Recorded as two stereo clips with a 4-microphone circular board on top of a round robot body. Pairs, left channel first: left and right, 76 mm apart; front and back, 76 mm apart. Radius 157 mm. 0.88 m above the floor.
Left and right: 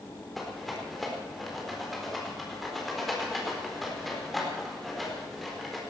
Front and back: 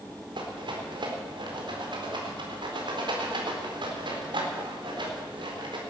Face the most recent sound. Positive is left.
turn(degrees=180)